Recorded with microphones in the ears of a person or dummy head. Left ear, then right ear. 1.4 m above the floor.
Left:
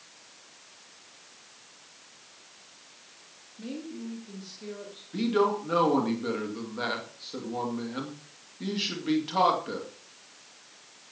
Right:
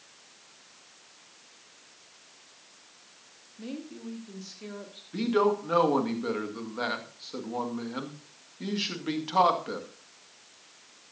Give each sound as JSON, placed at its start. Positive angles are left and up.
{"t": 3.6, "sound": "a woman speaking", "side_deg": -20, "distance_m": 2.5}
{"t": 5.1, "sound": "a man speaking", "side_deg": -20, "distance_m": 2.0}